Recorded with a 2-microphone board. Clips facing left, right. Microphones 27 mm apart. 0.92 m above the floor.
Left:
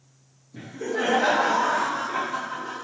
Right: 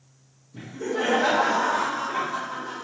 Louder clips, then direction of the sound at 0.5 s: Even; 50° left (ahead or behind).